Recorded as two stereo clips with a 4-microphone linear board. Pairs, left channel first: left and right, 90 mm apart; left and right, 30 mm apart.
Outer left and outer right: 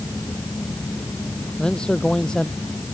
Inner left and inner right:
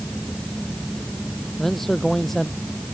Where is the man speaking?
10° left (ahead or behind).